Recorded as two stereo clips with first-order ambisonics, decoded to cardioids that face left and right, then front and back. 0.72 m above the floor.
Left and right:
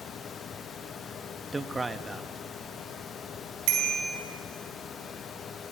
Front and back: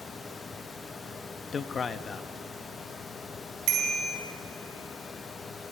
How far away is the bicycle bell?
About 4.5 m.